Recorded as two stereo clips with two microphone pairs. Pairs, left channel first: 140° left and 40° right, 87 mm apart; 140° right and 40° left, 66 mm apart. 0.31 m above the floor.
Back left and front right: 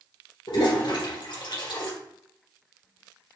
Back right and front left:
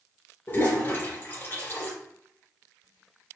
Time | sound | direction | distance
0.5 | a toilet flushing | 165° left | 2.5 m